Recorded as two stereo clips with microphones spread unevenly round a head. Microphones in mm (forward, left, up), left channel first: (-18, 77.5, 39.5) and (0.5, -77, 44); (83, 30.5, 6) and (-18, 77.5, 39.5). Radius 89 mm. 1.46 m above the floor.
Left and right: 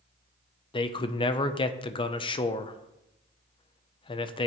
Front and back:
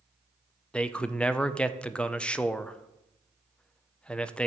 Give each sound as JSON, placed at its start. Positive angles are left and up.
{"t": 0.7, "sound": "a man speaking", "azimuth_deg": 45, "distance_m": 0.6}